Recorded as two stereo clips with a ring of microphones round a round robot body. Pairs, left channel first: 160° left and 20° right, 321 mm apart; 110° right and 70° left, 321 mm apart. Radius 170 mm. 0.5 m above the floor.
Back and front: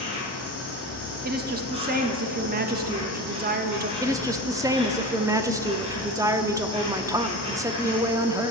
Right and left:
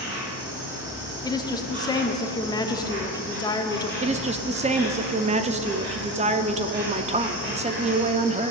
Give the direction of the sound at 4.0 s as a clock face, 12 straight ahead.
11 o'clock.